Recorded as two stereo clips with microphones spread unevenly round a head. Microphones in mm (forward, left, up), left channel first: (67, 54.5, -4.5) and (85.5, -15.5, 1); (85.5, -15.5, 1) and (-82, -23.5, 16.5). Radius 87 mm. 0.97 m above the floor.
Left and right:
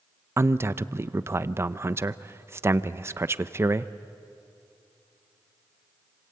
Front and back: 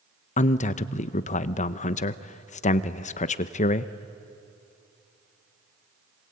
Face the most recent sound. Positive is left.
turn(degrees=-25)